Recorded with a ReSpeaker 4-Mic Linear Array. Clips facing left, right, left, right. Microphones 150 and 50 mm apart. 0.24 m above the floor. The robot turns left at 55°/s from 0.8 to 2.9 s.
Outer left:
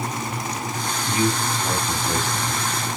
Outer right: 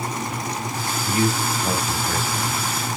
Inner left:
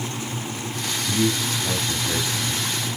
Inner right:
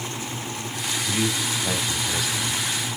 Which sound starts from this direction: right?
A man speaking, at 1.0 s.